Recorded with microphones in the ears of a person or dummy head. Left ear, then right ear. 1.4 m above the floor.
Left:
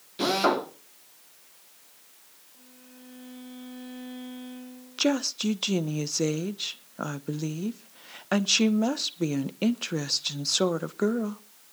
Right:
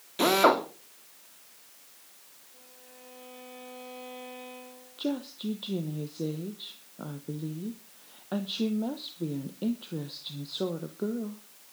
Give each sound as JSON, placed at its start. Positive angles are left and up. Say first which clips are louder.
{"t": 0.2, "sound": "a drill", "louder": "right 2 dB", "side_deg": -25, "distance_m": 2.5}
{"t": 2.5, "sound": "a violin", "louder": "even", "side_deg": -30, "distance_m": 7.0}
{"t": 5.0, "sound": "a woman speaking", "louder": "left 8 dB", "side_deg": 65, "distance_m": 0.9}